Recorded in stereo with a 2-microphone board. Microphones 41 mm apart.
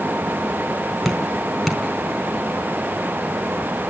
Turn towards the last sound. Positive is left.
turn(degrees=0)  # may be behind; listen again after turning